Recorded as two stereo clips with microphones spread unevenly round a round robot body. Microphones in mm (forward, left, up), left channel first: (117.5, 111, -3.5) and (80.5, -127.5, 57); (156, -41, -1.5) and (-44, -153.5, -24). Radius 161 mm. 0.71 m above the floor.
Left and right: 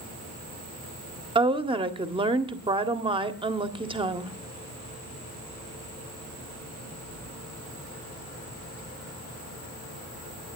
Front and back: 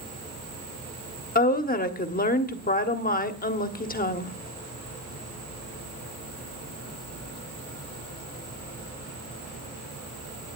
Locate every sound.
1.4 s a woman speaking: 25° right, 1.6 m